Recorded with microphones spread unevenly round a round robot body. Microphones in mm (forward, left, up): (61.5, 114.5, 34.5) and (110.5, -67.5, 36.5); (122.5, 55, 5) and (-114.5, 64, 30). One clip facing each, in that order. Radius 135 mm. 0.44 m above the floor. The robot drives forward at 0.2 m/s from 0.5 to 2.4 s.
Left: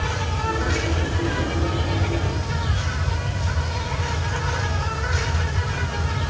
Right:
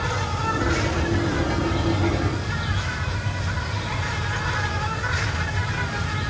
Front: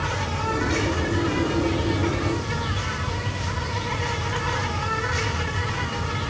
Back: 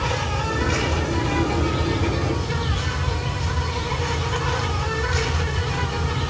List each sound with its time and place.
0.0 s an insect: 165° left, 2.5 m